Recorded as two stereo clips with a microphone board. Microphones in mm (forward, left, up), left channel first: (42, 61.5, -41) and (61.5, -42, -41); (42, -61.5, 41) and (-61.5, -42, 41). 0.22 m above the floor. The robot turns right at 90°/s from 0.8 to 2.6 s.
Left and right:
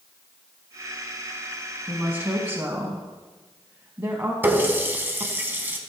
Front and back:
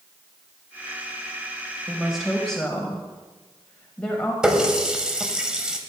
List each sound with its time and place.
1.9 s a woman speaking: 140° right, 1.0 m; by 4.3 s 75° right, 1.0 m
4.4 s a running tap: 115° right, 0.7 m